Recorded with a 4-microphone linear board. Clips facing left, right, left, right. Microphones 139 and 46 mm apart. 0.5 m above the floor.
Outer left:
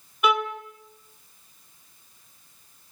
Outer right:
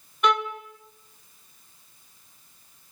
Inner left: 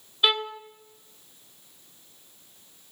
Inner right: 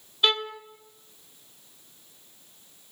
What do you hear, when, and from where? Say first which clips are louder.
0.2 s a violin: even, inner left 1 dB; 5° left (ahead or behind), 1.7 m